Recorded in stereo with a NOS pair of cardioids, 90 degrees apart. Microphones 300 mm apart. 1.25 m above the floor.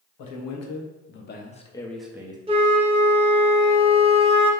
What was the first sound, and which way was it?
A man speaking, 70° left.